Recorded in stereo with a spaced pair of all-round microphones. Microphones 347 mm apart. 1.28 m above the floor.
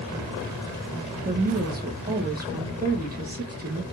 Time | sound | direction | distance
1.2 | a woman speaking | 25° right (ahead or behind) | 1.4 m